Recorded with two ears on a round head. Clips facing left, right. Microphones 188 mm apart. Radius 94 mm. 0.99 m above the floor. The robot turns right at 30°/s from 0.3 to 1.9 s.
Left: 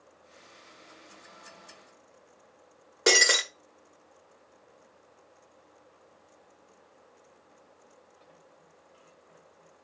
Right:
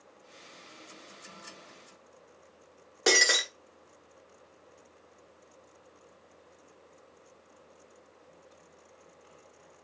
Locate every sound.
3.1 s breaking glass: centre (ahead or behind), 1.5 m